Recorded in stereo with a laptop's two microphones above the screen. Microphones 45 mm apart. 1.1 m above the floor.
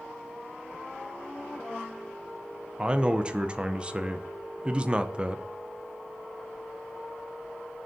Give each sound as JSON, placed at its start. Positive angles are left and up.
{"t": 2.8, "sound": "a man speaking", "side_deg": -25, "distance_m": 0.6}